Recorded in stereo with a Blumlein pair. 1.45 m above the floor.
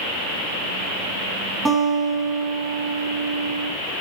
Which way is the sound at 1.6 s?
20° right.